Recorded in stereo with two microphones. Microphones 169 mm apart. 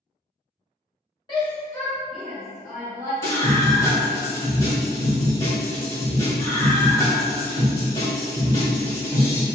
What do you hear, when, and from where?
1.3 s a shout: 30° left (ahead or behind), 1.1 m; by 3.1 s 20° right (ahead or behind), 1.5 m
3.2 s a scream: 20° left (ahead or behind), 1.6 m